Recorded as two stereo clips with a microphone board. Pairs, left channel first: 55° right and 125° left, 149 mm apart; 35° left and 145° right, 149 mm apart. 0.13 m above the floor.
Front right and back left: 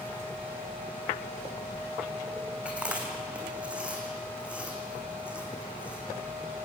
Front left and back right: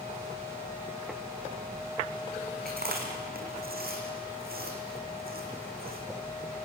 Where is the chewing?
155° right, 3 m.